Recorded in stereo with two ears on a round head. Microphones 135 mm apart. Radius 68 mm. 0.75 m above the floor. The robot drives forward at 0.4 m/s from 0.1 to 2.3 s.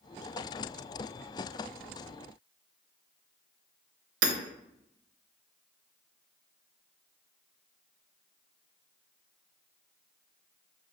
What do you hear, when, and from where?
4.2 s hammering: 85° right, 0.7 m